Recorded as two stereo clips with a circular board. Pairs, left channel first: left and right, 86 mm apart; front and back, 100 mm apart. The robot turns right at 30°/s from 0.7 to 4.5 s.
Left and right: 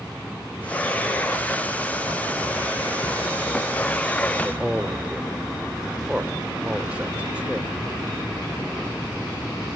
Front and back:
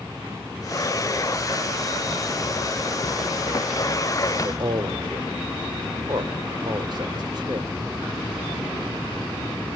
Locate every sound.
4.4 s a man speaking: 165° right, 1.7 m; by 7.7 s 160° right, 1.7 m